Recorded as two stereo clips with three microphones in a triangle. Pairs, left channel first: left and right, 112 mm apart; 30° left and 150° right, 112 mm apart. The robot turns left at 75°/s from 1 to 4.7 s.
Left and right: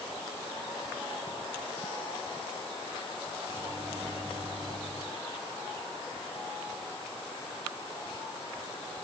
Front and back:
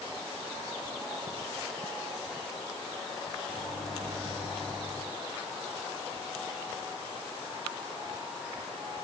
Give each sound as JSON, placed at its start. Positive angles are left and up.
{"t": 3.5, "sound": "a microwave", "azimuth_deg": -55, "distance_m": 1.1}